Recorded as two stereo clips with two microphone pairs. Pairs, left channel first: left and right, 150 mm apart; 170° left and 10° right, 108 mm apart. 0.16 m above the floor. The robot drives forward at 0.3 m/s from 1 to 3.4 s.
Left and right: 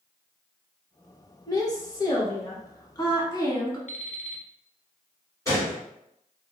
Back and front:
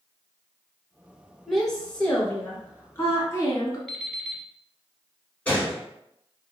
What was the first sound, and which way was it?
A woman speaking, 85° left.